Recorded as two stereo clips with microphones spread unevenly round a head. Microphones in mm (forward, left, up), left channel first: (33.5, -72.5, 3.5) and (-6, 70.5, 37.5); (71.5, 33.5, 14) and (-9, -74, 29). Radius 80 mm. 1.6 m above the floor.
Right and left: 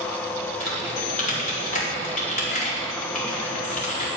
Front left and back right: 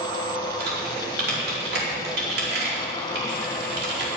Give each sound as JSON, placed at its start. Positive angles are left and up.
{"t": 0.6, "sound": "typing on a keyboard", "azimuth_deg": -120, "distance_m": 4.5}